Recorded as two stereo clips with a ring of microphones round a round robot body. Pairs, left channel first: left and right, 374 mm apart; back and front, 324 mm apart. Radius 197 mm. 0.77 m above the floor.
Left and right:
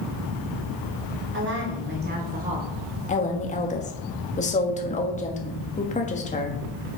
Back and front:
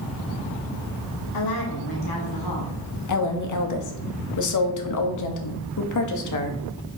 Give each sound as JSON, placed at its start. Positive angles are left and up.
{"t": 1.3, "sound": "a woman speaking", "azimuth_deg": -150, "distance_m": 1.9}
{"t": 3.1, "sound": "a woman speaking", "azimuth_deg": 160, "distance_m": 1.3}